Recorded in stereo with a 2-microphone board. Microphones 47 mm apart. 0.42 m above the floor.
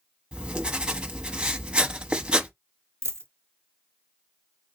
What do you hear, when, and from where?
0.3 s writing: 20° right (ahead or behind), 0.9 m
3.0 s a dropped coin: 75° right (ahead or behind), 0.9 m